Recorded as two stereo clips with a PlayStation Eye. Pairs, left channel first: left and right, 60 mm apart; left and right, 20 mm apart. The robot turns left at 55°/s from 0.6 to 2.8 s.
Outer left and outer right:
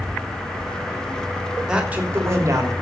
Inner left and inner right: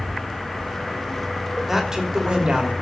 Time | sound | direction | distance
1.7 | a man speaking | 10° right | 3.5 m